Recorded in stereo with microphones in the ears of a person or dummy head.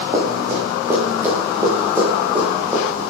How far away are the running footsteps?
About 4.5 m.